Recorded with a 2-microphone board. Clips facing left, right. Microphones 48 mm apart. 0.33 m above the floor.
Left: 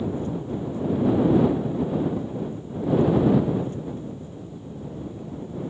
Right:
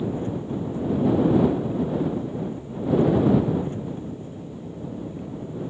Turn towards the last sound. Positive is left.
turn(degrees=-30)  # may be behind; listen again after turning